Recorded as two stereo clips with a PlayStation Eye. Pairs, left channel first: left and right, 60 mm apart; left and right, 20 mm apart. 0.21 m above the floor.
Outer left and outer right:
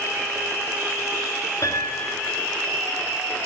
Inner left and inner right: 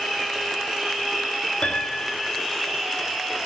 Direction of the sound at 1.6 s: 65° left (ahead or behind).